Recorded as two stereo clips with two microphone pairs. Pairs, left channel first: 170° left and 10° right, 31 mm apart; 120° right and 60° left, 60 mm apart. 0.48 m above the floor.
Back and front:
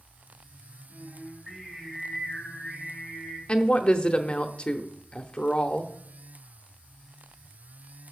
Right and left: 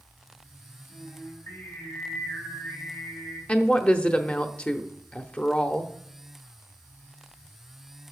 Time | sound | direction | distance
0.9 | singing | 100° right | 3 m
3.5 | a woman speaking | 175° right | 0.7 m